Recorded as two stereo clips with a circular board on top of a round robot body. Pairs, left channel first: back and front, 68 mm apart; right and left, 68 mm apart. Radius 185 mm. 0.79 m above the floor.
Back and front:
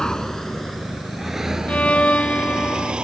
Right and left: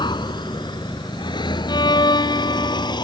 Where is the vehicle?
100° right; by 3.0 s 75° right.